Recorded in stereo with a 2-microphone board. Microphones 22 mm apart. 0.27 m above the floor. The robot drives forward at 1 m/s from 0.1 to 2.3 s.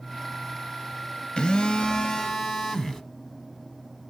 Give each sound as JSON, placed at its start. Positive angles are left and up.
{"t": 1.4, "sound": "a phone buzzing", "side_deg": 35, "distance_m": 0.6}